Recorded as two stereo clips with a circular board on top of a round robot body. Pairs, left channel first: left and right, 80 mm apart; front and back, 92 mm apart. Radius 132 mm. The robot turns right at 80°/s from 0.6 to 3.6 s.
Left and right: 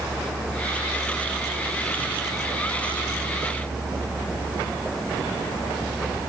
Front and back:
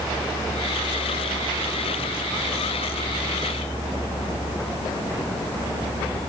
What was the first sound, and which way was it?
Only background noise.